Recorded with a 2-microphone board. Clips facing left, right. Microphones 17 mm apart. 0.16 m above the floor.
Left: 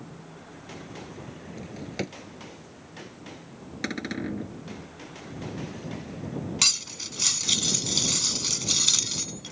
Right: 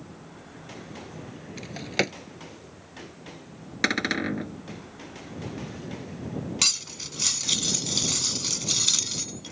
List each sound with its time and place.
1.6 s a drawer: 45° right (ahead or behind)
3.8 s a cupboard door: 40° right (ahead or behind)
6.6 s cutlery clinking: 5° left (ahead or behind)